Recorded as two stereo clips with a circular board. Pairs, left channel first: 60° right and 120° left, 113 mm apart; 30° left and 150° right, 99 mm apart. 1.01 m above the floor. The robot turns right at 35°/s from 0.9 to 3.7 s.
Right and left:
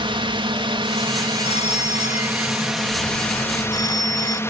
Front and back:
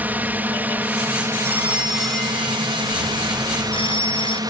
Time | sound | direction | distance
0.0 | a drone | 140° left | ?
1.4 | a phone ringing | 80° right | ?